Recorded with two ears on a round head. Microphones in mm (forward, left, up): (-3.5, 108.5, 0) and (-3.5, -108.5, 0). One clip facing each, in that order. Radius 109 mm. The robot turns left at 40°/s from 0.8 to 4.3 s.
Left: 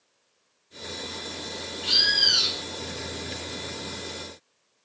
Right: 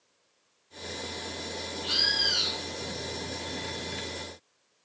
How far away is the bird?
About 2.5 m.